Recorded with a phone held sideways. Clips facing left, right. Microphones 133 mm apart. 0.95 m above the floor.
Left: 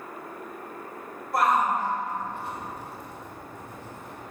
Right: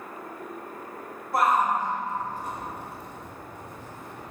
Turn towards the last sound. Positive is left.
turn(degrees=-50)  # may be behind; listen again after turning